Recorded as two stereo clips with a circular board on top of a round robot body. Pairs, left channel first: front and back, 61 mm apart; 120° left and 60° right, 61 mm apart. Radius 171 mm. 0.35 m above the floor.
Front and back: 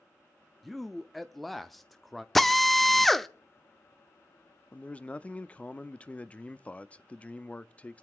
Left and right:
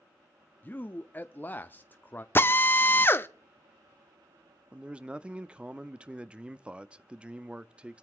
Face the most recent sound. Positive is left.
turn(degrees=-20)